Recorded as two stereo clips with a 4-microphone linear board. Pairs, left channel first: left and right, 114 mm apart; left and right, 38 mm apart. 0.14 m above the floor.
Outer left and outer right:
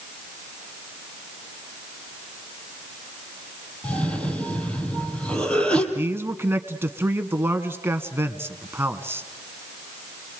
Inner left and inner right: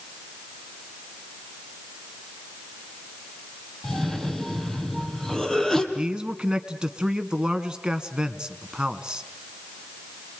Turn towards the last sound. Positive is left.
turn(degrees=-20)  # may be behind; listen again after turning